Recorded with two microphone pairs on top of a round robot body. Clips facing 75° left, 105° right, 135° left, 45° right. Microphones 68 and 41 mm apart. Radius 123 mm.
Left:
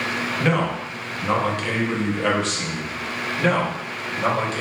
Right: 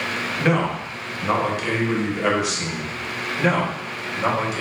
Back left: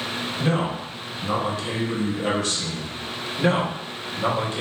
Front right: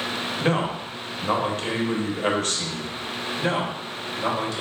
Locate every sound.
0.4 s a man speaking: 25° right, 1.0 m
3.4 s a man speaking: 175° right, 1.3 m